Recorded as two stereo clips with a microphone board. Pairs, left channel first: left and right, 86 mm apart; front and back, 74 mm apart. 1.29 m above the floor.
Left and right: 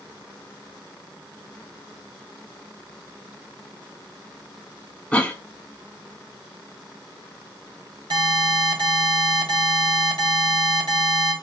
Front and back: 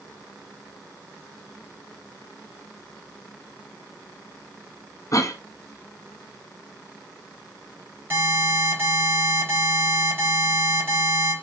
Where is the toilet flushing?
No toilet flushing in this recording.